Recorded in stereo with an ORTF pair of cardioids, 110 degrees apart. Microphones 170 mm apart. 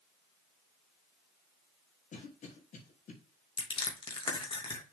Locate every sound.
2.1 s a cough: 45° left, 3 m
3.6 s crushing: 30° left, 2.5 m